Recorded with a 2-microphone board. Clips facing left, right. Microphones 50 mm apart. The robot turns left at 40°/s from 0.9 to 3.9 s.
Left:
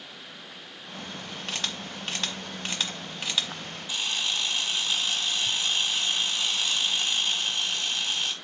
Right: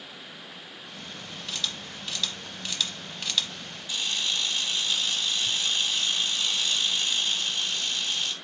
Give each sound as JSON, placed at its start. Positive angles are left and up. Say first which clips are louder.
{"t": 1.5, "sound": "a camera shutter", "louder": "left 1 dB", "side_deg": 45, "distance_m": 0.9}
{"t": 3.9, "sound": "a camera shutter", "louder": "even", "side_deg": 15, "distance_m": 1.9}